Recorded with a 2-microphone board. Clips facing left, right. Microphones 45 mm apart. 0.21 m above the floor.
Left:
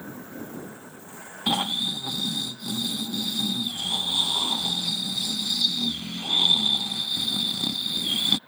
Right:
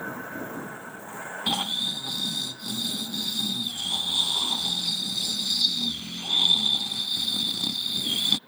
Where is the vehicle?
50° right (ahead or behind); by 8.5 s 15° left (ahead or behind).